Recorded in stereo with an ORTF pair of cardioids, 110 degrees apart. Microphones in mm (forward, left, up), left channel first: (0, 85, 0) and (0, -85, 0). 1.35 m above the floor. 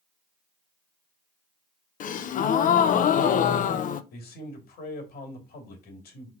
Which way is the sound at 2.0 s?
50° left.